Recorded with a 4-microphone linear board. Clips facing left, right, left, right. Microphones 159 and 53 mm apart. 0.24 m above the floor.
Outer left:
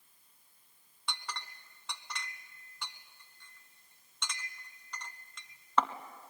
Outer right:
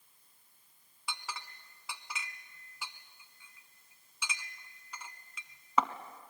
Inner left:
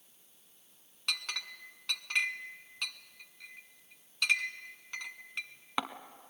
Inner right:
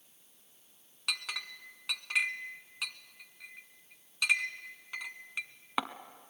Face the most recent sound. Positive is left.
turn(degrees=-5)  # may be behind; listen again after turning